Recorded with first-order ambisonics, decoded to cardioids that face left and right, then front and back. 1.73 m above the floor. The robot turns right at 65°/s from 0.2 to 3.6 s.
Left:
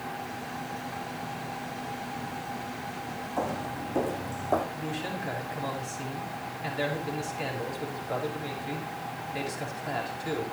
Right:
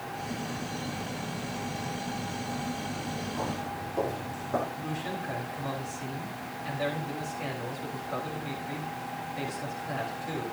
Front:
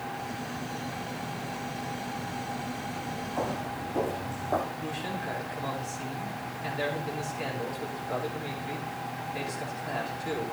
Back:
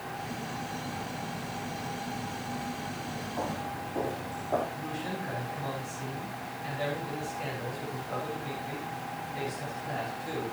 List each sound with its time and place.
3.4 s footsteps: 65° left, 4 m; by 4.6 s 75° left, 5.5 m
4.7 s a man speaking: 65° left, 5.5 m